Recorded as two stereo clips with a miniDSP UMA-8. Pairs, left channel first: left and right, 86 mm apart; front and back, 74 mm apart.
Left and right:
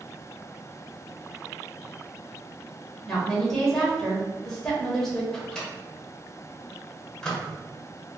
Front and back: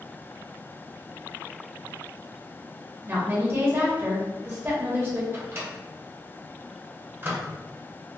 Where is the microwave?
160° left, 0.8 m.